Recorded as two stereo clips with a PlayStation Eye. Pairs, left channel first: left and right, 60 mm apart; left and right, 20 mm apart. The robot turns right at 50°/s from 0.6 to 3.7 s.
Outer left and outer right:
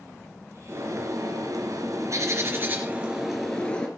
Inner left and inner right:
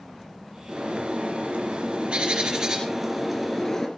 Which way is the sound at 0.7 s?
135° right.